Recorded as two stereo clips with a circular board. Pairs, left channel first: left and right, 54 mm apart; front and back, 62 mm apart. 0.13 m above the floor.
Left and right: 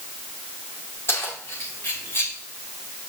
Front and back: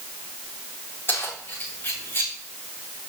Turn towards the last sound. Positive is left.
turn(degrees=45)